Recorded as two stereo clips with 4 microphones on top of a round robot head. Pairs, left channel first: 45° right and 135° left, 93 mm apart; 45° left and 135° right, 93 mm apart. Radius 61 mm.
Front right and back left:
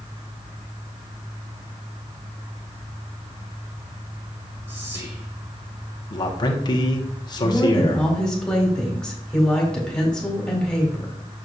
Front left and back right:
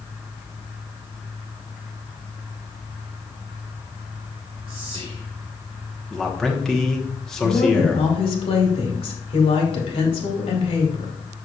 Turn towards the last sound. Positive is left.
turn(degrees=35)